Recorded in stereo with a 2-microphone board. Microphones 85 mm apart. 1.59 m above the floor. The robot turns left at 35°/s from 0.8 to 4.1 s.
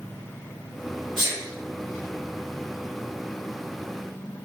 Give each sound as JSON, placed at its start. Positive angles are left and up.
{"t": 1.2, "sound": "a sneeze", "side_deg": -75, "distance_m": 1.7}